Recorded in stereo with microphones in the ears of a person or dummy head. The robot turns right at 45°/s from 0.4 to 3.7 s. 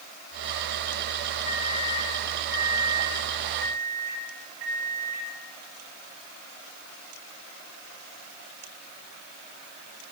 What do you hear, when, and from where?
1.4 s a microwave: 140° left, 3.5 m; by 5.3 s 115° right, 3.5 m